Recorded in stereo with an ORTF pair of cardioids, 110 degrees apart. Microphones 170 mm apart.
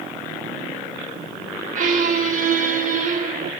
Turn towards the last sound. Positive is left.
turn(degrees=-50)